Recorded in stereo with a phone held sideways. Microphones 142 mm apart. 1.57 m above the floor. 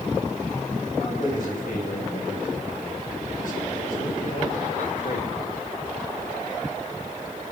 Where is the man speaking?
75° left (ahead or behind), 9.5 m.